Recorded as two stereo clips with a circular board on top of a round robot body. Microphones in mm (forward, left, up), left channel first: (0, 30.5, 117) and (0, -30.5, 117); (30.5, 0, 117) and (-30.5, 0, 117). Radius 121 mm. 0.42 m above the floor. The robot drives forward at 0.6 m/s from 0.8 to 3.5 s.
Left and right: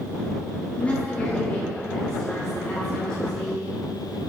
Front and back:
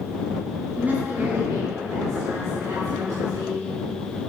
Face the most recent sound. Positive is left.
turn(degrees=170)